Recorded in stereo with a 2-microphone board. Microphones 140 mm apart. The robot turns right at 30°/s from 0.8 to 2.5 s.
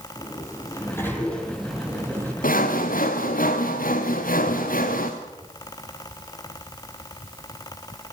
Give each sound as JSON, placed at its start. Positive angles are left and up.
{"t": 0.2, "sound": "a sliding door", "azimuth_deg": 155, "distance_m": 4.5}
{"t": 2.4, "sound": "sawing", "side_deg": 75, "distance_m": 2.5}